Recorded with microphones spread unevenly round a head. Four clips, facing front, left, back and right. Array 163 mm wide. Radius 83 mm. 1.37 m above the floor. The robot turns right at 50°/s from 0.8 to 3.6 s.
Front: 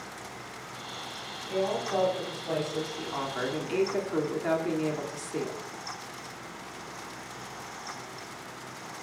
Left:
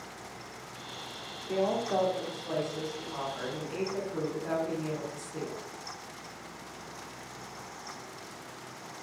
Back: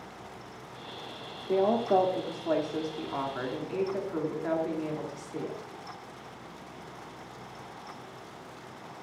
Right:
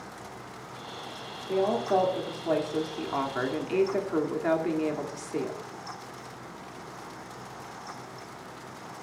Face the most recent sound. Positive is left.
turn(degrees=-65)